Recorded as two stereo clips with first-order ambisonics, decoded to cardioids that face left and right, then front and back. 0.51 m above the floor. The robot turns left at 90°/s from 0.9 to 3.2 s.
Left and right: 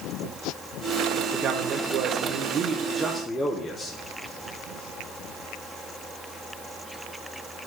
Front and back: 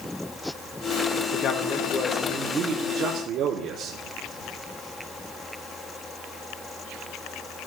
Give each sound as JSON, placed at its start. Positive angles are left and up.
{"t": 1.3, "sound": "a man speaking", "azimuth_deg": -20, "distance_m": 0.8}